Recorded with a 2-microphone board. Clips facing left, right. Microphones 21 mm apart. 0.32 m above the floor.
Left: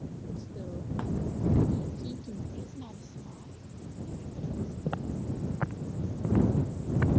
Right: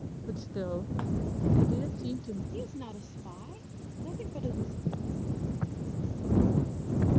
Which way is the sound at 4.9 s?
40° left (ahead or behind).